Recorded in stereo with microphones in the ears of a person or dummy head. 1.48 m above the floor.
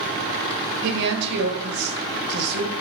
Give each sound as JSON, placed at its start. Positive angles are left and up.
{"t": 0.8, "sound": "a woman speaking", "side_deg": -60, "distance_m": 1.1}